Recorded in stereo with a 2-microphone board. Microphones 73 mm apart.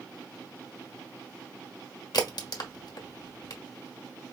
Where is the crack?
70° left (ahead or behind), 1.2 m.